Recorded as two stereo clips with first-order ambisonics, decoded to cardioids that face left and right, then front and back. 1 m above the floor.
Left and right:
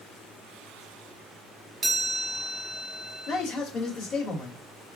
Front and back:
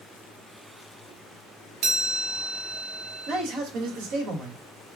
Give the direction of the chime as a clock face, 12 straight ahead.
5 o'clock.